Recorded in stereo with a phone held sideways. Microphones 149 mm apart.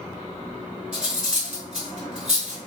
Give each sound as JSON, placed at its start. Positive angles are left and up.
{"t": 0.9, "sound": "cutlery clinking", "side_deg": -5, "distance_m": 2.0}